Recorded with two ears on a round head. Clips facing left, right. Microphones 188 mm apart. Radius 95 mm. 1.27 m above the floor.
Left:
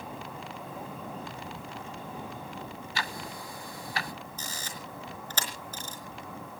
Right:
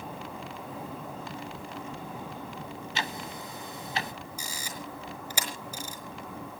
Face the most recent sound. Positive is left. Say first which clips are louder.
# right 2 dB
turn(degrees=-10)  # may be behind; listen again after turning